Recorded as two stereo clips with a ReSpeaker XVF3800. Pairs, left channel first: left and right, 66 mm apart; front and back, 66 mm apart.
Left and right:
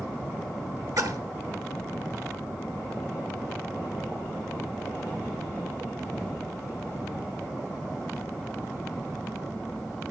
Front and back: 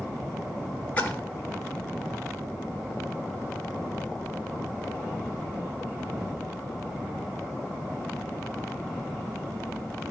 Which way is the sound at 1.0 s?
65° right.